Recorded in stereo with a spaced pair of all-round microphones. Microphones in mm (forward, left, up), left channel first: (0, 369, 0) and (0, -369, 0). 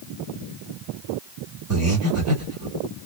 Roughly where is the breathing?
Centre.